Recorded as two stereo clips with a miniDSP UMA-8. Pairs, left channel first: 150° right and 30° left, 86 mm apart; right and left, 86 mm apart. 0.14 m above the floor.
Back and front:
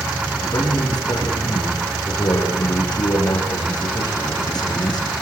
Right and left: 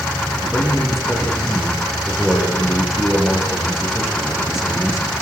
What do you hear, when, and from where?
0.4 s a man speaking: 175° left, 9 m